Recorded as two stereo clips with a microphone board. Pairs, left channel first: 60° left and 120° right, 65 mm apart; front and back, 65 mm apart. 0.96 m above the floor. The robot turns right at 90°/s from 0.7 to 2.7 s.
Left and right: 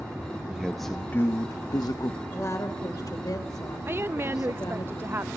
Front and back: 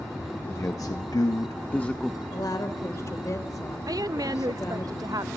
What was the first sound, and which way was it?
A man speaking, 35° right.